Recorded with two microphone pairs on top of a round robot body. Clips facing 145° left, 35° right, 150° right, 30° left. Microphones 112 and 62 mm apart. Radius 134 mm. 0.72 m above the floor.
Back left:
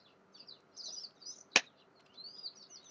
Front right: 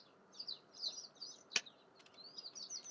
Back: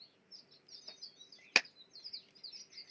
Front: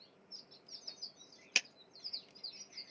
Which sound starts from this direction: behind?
A clap, at 1.6 s.